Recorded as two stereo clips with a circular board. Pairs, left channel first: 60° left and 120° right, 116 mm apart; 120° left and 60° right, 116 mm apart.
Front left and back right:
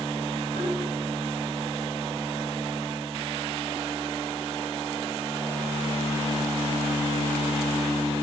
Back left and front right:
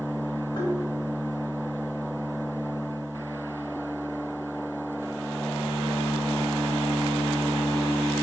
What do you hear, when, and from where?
0.6 s tapping: 80° left, 5 m